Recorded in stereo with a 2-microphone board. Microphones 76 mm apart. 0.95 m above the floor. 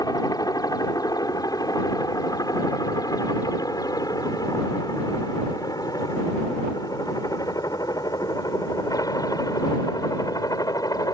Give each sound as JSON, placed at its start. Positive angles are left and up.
{"t": 0.0, "sound": "a helicopter", "side_deg": 60}